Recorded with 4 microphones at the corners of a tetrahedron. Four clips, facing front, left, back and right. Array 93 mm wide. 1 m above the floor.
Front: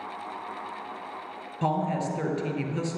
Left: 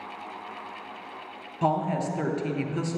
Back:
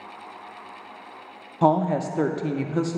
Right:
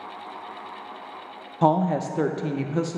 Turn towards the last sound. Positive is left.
turn(degrees=-140)